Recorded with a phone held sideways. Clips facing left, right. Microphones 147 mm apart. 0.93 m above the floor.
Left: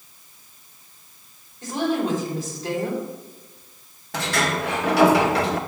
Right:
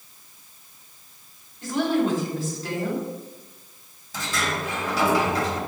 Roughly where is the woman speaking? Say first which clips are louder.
Right 1 dB; centre.